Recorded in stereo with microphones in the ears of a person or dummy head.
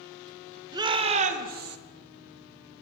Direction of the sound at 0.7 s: 20° right (ahead or behind).